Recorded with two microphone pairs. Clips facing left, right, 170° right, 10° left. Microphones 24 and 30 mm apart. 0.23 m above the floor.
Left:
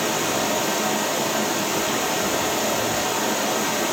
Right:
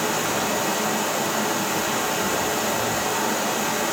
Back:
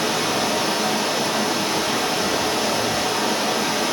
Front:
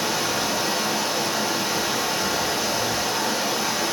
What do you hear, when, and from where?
0.0 s running water: 150° left, 1.0 m